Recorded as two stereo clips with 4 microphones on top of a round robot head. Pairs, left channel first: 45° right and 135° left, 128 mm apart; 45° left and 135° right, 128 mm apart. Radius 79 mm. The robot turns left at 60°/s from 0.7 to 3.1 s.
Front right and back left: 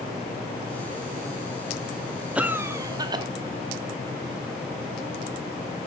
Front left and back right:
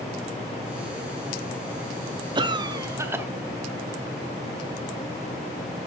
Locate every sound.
2.4 s a cough: 150° right, 0.7 m; by 3.2 s 165° left, 0.7 m